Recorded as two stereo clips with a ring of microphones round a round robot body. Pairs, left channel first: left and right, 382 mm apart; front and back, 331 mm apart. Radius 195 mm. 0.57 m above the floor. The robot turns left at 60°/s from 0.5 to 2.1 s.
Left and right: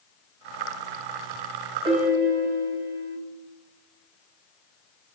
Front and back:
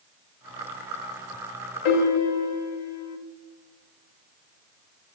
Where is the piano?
10° right, 0.5 m; by 3.2 s 25° right, 0.5 m.